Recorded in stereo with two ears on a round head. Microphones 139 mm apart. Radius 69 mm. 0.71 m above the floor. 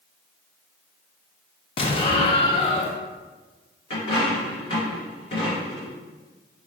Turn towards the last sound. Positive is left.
turn(degrees=35)  # may be behind; listen again after turning